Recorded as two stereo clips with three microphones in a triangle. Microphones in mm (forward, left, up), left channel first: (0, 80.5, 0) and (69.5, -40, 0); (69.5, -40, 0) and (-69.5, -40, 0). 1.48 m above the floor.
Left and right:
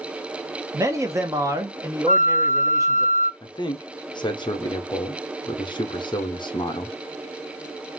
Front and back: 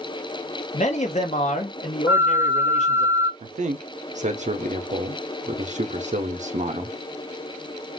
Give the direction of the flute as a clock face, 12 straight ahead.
9 o'clock.